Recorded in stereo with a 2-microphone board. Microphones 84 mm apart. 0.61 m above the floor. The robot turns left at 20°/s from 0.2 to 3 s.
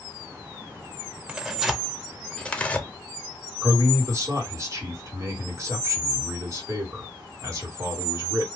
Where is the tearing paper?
10° right (ahead or behind), 0.5 m; by 2.9 s 20° left (ahead or behind), 0.5 m.